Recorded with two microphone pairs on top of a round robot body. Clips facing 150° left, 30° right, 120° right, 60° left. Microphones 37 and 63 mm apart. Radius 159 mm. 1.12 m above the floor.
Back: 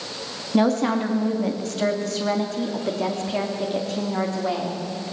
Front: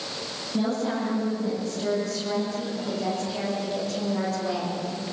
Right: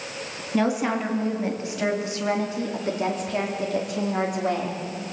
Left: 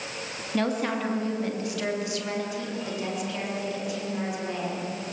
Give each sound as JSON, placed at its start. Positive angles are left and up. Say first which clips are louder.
{"t": 0.5, "sound": "a woman speaking", "louder": "back 7 dB, right 4 dB", "azimuth_deg": 160, "distance_m": 2.5}